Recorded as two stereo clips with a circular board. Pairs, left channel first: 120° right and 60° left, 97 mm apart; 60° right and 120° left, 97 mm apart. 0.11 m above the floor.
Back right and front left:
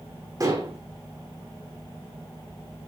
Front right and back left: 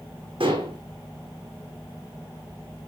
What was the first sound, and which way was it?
Dishes clattering, 110° left.